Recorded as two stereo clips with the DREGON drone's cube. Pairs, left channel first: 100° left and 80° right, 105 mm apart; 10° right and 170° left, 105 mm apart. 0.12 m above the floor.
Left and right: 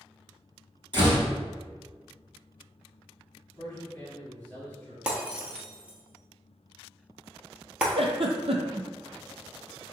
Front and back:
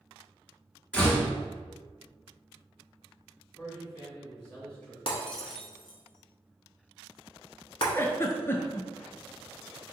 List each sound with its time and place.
0.9 s a door slam: 90° right, 1.7 m
3.5 s a man speaking: 50° left, 1.9 m
5.1 s breaking glass: 5° right, 0.9 m
8.0 s a giggle: 80° right, 0.5 m